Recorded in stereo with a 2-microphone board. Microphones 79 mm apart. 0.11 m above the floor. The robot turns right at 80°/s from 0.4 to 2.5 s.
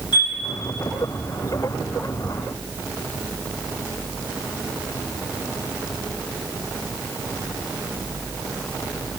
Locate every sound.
0.1 s a chime: 60° left (ahead or behind), 4 m